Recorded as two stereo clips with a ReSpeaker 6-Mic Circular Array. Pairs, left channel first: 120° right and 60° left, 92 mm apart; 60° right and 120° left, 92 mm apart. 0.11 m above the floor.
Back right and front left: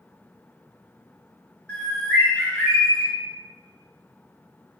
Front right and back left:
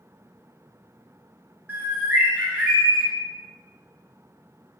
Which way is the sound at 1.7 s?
175° left.